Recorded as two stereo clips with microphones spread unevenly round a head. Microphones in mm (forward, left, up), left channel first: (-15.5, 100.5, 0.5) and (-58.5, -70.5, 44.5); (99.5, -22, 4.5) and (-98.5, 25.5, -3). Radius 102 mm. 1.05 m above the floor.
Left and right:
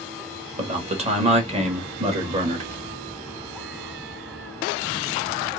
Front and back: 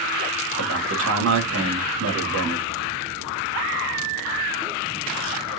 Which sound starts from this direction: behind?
A man speaking, at 0.6 s.